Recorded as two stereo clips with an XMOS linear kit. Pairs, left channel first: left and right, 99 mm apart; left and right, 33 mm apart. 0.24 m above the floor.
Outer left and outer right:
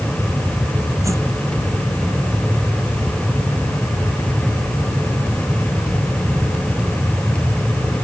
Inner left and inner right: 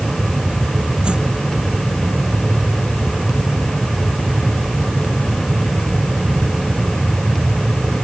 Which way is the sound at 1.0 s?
30° right (ahead or behind).